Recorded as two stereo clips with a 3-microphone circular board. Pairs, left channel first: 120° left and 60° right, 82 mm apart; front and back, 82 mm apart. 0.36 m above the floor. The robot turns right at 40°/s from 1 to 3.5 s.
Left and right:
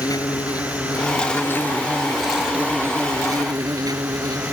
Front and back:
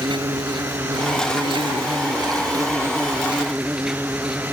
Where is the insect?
165° left; by 4.5 s 95° right.